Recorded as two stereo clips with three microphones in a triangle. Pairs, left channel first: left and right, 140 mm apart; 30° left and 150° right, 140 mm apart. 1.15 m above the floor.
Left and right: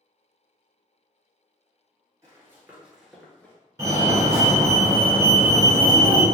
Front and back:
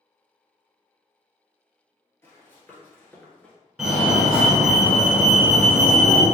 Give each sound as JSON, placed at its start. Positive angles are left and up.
{"t": 2.2, "sound": "running footsteps", "azimuth_deg": -35, "distance_m": 1.4}
{"t": 3.8, "sound": "a fire alarm", "azimuth_deg": -75, "distance_m": 1.4}